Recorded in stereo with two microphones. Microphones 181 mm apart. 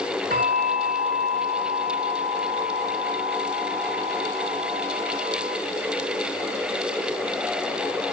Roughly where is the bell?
Right.